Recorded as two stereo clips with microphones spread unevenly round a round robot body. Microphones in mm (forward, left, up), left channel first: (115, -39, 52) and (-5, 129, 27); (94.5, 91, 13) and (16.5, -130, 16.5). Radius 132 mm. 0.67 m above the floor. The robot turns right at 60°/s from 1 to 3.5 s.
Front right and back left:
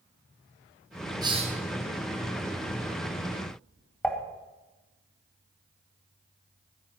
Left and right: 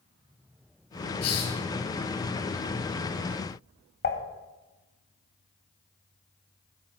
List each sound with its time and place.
1.2 s a hiss: 55° left, 3 m; by 1.6 s 75° left, 3 m
4.0 s dishes clattering: 30° left, 2.5 m